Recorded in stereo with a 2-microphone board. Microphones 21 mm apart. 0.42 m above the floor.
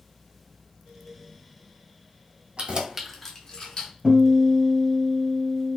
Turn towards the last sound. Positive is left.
turn(degrees=-25)  # may be behind; listen again after turning